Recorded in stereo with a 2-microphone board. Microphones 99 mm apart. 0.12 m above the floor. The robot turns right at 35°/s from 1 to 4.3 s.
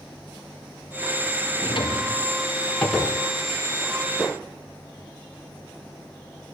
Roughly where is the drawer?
Left.